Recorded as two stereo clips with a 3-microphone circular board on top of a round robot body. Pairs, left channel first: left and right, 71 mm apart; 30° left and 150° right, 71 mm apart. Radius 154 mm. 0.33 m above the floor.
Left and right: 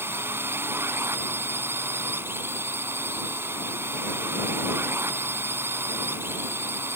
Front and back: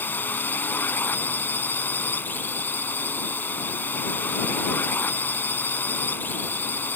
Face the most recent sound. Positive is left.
turn(degrees=-35)